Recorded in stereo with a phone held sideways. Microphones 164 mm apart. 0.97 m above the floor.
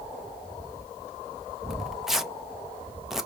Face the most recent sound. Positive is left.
turn(degrees=-5)  # may be behind; listen again after turning